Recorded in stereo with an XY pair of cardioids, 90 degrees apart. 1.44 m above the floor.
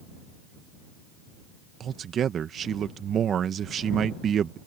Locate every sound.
1.8 s a man speaking: 65° right